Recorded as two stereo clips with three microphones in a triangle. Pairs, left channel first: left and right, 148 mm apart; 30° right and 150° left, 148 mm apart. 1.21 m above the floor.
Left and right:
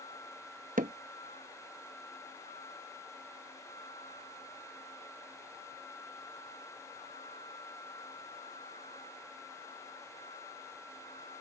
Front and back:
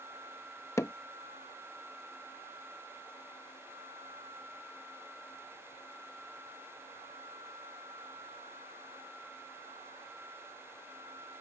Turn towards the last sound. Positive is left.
turn(degrees=-100)